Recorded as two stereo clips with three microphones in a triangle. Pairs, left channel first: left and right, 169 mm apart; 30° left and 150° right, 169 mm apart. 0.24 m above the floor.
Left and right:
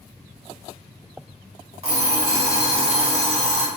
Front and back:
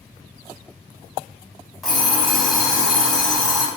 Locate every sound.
1.8 s an alarm clock: 60° right, 0.8 m